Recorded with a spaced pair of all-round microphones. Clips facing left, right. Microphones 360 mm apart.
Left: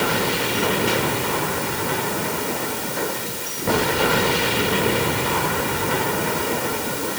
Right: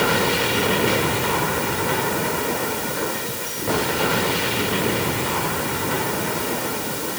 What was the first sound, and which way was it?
Only background noise.